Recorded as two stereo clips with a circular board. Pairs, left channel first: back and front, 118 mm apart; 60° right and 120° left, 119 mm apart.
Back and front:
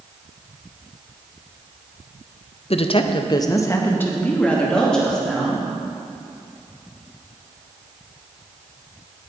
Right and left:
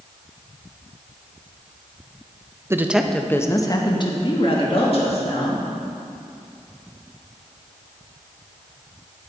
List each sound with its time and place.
2.7 s a woman speaking: 175° right, 0.5 m; by 5.6 s 95° right, 1.9 m